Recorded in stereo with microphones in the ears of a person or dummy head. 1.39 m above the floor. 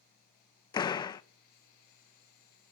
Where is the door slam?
30° left (ahead or behind), 0.9 m.